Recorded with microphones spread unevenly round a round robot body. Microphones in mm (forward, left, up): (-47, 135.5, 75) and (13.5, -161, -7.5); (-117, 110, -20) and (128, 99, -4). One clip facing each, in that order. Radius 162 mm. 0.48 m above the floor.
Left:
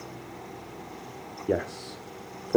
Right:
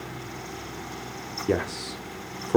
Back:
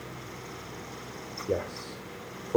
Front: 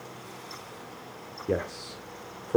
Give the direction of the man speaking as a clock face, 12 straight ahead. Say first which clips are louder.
Right 2 dB, front 1 dB; 2 o'clock.